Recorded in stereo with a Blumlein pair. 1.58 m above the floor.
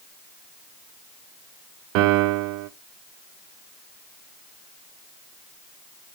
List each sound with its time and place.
1.9 s a piano: 40° right, 0.7 m